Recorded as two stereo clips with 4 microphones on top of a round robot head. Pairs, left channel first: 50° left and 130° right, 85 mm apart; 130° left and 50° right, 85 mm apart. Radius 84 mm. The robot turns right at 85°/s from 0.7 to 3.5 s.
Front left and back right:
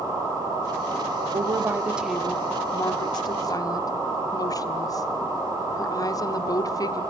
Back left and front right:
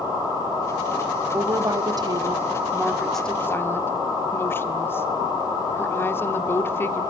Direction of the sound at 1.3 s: 110° right.